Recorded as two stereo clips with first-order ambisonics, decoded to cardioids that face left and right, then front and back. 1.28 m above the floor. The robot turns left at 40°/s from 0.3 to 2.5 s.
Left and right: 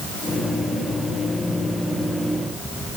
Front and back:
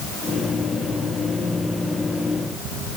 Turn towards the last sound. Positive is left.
No sound to turn to.